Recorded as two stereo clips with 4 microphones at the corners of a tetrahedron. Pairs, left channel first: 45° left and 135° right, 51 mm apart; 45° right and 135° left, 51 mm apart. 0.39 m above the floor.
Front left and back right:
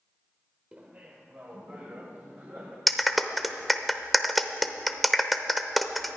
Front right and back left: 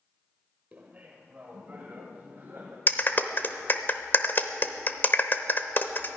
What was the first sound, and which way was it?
Laughter, 175° left.